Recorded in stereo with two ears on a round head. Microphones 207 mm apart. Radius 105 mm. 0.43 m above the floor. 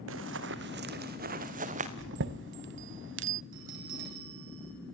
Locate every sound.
0.1 s running footsteps: 60° right (ahead or behind), 1.8 m; by 1.9 s 30° right (ahead or behind), 2.5 m
2.0 s a chime: 55° right (ahead or behind), 0.7 m
3.5 s a bell: 60° right (ahead or behind), 10 m